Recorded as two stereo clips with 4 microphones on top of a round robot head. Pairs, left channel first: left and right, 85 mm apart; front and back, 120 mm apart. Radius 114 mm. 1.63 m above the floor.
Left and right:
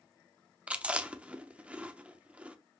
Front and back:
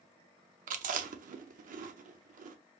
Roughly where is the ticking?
I don't hear ticking.